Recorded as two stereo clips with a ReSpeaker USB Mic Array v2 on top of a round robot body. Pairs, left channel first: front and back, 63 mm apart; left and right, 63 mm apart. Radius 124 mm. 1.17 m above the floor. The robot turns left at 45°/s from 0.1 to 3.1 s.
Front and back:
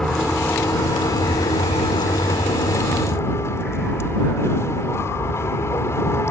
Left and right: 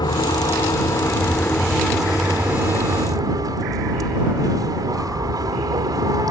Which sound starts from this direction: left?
A vehicle, at 0.0 s.